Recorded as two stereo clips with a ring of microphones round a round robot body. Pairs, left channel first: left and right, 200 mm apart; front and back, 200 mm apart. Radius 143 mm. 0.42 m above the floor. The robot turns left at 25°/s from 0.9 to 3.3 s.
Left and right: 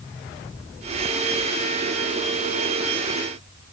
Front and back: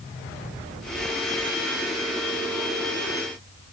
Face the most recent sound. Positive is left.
No sound to turn to.